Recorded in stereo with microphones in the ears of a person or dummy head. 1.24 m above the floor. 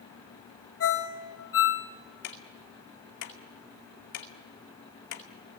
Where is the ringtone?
80° left, 3 m.